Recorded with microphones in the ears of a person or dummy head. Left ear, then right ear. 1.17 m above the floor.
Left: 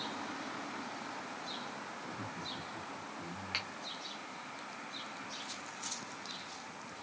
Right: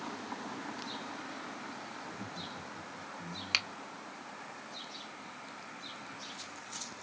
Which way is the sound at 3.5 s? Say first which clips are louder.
Right 7 dB; 85° right.